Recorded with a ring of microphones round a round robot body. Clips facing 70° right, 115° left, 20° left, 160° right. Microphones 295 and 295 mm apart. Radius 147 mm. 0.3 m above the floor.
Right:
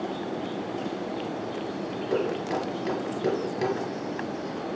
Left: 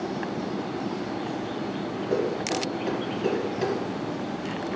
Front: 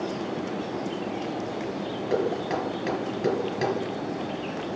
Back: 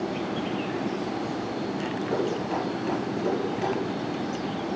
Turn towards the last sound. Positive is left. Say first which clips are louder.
# left 1 dB, front 3 dB
turn(degrees=10)